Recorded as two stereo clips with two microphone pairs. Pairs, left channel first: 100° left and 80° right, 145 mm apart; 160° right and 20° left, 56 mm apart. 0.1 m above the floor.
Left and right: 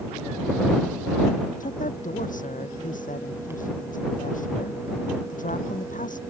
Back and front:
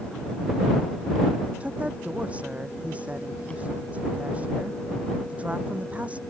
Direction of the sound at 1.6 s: 85° left.